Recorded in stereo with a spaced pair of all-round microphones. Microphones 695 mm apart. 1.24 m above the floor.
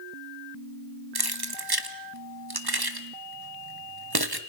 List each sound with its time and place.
1.1 s keys jangling: 30° right (ahead or behind), 1.5 m